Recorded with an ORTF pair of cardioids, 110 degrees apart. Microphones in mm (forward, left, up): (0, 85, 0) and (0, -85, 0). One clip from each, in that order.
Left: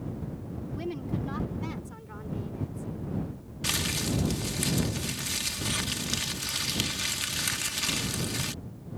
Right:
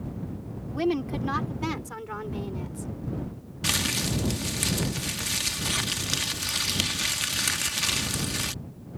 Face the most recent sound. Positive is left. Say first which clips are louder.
# right 3 dB
turn(degrees=-20)